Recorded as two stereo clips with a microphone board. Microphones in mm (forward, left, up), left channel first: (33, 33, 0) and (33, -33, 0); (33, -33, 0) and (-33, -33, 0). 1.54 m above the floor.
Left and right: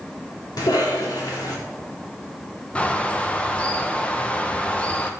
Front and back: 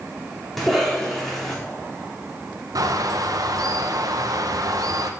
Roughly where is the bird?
Behind.